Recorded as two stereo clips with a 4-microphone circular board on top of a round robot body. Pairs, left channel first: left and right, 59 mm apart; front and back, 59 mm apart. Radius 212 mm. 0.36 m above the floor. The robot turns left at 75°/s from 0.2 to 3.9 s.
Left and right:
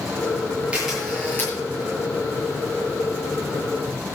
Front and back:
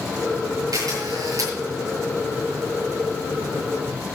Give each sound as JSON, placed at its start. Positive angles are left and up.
{"t": 0.7, "sound": "a camera shutter", "azimuth_deg": -160, "distance_m": 7.5}